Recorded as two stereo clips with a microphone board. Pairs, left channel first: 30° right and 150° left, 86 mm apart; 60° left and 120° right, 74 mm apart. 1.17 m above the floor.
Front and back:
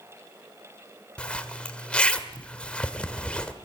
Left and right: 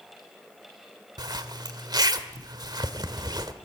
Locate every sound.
1.2 s a zipper: 105° right, 1.4 m